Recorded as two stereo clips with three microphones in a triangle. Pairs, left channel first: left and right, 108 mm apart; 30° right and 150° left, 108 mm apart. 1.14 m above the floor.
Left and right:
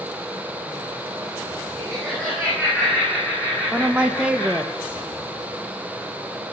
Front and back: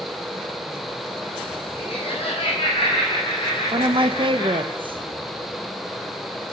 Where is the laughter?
5° left, 9.5 m; by 4.7 s 15° left, 8.5 m.